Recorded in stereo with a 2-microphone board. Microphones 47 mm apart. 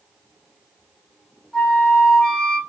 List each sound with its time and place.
1.5 s a flute: 10° left (ahead or behind), 1.6 m